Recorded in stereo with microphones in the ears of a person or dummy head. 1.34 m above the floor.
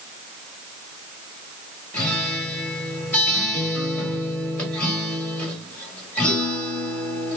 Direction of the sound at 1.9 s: 5° left (ahead or behind).